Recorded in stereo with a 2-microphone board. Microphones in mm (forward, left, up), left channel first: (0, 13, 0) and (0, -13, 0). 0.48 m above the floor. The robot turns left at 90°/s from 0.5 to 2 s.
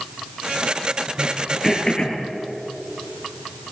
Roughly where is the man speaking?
No man speaking in this recording.